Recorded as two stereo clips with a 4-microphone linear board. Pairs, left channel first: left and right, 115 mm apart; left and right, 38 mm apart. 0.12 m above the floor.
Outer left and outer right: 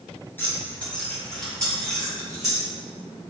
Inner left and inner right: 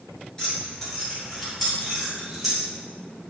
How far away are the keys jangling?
About 1.4 m.